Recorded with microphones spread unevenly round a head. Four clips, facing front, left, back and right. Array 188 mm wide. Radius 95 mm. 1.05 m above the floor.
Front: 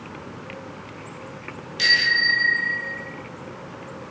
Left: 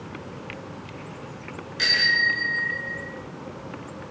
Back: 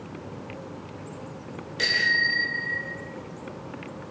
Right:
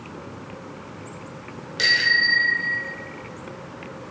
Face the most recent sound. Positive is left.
turn(degrees=-135)